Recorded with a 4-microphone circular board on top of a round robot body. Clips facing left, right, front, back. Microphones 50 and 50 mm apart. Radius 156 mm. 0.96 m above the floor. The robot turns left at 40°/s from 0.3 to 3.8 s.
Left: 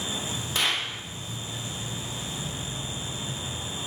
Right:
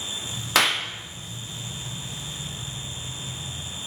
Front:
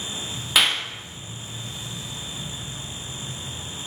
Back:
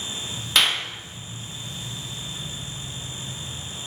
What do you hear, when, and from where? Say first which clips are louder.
0.6 s a clap: right 6 dB, even; 85° right, 1.3 m; by 0.8 s 95° right, 1.3 m